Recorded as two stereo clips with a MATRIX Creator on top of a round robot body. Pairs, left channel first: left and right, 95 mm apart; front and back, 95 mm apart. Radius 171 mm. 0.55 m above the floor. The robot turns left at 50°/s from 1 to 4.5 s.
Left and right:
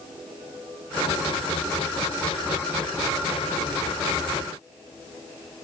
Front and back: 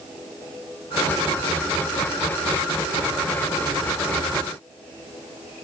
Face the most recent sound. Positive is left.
No sound to turn to.